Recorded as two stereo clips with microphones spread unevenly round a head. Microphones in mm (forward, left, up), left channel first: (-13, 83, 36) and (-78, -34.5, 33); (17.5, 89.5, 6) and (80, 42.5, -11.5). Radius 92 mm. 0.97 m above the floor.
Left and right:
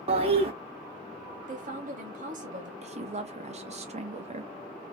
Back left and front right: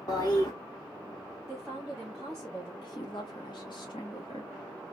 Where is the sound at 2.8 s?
155° right, 0.9 m.